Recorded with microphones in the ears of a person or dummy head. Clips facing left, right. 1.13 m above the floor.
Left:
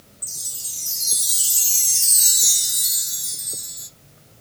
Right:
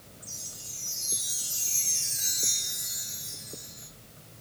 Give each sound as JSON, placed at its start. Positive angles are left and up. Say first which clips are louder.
{"t": 0.2, "sound": "a chime", "louder": "even", "side_deg": 50, "distance_m": 0.9}